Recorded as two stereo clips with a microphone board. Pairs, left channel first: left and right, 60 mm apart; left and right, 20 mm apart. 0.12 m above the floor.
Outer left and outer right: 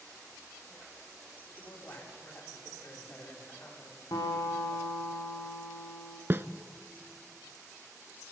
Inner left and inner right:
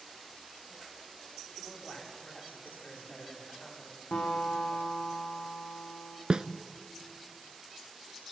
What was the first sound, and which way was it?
A man speaking, 40° left (ahead or behind).